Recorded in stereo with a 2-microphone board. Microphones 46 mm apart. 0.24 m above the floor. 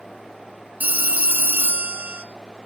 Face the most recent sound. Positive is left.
turn(degrees=-35)  # may be behind; listen again after turning